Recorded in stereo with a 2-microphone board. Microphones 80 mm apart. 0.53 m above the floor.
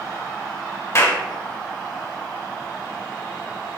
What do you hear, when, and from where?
0.9 s a clap: 35° left (ahead or behind), 1.4 m